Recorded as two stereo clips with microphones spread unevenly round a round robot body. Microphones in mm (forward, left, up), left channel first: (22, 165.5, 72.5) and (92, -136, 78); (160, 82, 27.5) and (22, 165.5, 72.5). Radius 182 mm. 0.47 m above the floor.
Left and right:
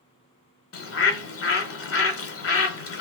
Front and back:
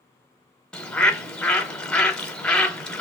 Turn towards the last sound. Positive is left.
turn(degrees=55)